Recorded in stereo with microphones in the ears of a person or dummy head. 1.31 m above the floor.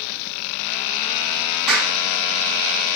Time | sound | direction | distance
1.7 | a clap | 5° right (ahead or behind) | 9 m